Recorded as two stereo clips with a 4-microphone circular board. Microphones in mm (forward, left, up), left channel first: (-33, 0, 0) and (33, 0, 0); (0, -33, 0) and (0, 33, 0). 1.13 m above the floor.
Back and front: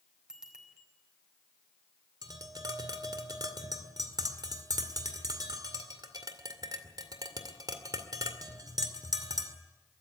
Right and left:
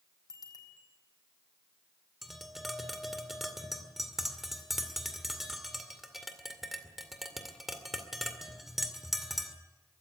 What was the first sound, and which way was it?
A bicycle bell, 80° right.